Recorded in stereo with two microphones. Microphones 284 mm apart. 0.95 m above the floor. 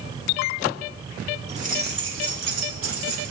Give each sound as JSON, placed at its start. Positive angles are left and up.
{"t": 1.5, "sound": "keys jangling", "side_deg": -20, "distance_m": 1.9}